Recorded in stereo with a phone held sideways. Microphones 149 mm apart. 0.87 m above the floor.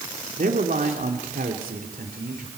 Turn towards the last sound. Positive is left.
turn(degrees=-80)